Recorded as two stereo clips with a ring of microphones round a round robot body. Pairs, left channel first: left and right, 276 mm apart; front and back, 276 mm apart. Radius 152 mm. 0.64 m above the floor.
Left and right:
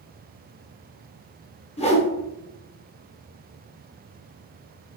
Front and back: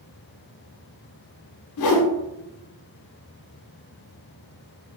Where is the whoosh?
20° left, 0.6 m.